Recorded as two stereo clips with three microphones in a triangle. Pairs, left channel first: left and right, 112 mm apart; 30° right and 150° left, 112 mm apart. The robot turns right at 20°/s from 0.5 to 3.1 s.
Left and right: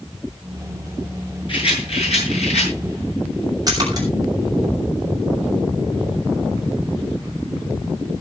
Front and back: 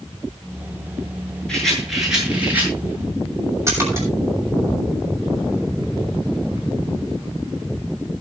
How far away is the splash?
About 7 m.